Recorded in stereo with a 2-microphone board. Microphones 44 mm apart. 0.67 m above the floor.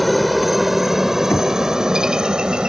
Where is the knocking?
85° left.